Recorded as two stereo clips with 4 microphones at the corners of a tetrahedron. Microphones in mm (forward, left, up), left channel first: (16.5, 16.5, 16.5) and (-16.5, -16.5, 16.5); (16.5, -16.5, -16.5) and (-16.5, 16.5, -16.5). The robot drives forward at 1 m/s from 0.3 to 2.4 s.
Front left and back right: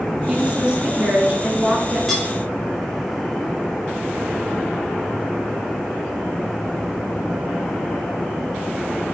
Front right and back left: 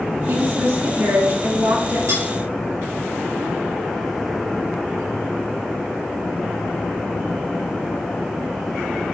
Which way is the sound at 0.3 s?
160° left.